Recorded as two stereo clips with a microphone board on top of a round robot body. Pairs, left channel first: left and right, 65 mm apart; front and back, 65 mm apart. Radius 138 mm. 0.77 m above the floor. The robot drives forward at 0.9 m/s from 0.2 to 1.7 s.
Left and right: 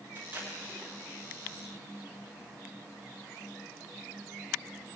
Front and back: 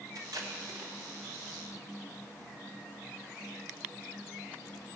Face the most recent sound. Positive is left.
turn(degrees=-165)